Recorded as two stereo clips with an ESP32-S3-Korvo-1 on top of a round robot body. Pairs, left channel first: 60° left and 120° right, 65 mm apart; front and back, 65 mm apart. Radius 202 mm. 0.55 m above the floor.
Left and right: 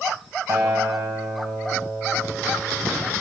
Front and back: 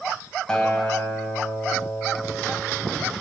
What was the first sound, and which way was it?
A guitar, 80° right.